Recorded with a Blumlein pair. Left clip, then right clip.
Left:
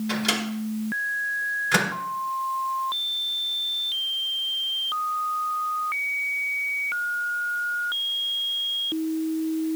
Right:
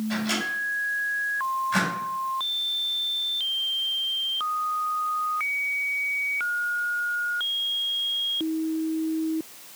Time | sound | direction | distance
0.1 | a microwave | 45° left | 3.5 m